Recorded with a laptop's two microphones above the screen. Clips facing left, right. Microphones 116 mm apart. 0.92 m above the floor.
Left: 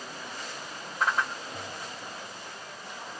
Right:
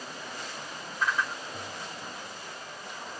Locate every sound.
1.0 s a whoosh: 70° left (ahead or behind), 2.5 m